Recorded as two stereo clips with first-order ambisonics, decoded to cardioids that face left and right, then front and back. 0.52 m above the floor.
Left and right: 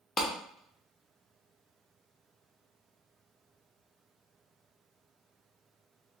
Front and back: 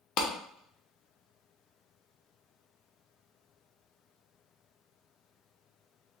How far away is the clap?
About 0.8 m.